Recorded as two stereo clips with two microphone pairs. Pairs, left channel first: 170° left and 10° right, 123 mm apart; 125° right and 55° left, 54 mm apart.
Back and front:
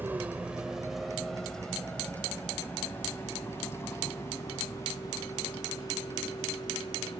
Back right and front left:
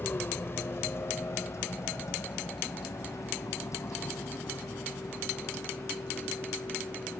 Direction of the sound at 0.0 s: 80° right.